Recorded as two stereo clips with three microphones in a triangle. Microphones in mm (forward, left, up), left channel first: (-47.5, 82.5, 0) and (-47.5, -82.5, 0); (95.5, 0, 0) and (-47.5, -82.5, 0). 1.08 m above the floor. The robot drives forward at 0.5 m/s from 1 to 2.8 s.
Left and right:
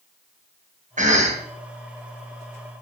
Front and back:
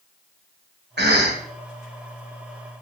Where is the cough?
135° right, 1.2 m; by 1.4 s 140° right, 1.3 m.